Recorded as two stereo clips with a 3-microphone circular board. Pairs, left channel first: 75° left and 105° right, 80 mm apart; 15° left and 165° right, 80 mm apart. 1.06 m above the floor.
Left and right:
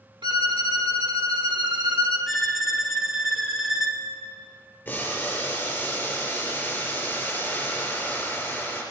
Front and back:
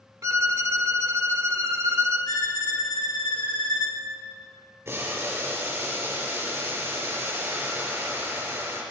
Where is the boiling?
135° left, 4.5 m.